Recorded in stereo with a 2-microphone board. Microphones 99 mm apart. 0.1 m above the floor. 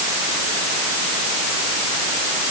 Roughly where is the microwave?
No microwave in this recording.